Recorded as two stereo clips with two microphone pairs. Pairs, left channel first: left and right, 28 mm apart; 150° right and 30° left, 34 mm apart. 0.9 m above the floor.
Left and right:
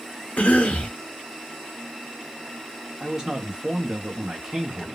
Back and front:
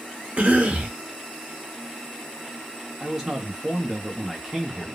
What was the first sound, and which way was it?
A cough, 70° left.